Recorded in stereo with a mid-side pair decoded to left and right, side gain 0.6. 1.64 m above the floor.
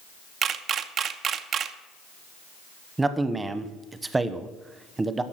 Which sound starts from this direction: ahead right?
A camera shutter, at 0.4 s.